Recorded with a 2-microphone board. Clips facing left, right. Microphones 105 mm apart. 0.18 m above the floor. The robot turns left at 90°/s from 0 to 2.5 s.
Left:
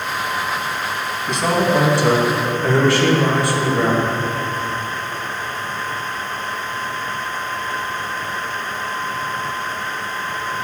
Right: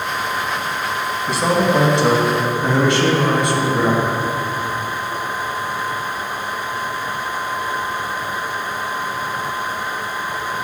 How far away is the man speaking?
About 1.6 m.